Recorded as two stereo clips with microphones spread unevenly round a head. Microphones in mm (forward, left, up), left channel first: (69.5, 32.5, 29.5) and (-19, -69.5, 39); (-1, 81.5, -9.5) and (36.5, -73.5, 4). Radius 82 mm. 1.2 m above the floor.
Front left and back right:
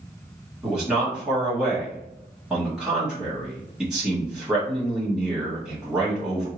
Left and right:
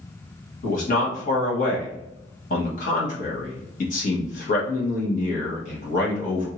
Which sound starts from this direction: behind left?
A man speaking, at 0.6 s.